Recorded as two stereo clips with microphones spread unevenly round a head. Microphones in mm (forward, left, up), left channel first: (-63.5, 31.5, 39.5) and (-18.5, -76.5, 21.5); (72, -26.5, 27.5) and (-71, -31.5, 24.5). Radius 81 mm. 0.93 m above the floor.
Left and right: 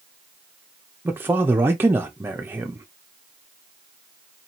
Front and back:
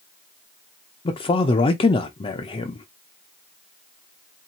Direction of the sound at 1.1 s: 20° right.